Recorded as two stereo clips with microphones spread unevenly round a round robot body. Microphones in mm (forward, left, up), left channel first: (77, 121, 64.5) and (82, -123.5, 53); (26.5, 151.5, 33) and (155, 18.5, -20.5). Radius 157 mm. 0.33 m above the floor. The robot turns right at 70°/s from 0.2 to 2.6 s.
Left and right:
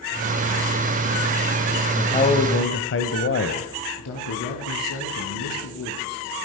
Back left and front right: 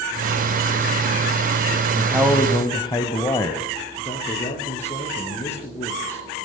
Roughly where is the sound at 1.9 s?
Ahead.